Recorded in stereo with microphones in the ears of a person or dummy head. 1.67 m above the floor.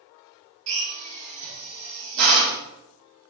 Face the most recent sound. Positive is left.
turn(degrees=-70)  # may be behind; listen again after turning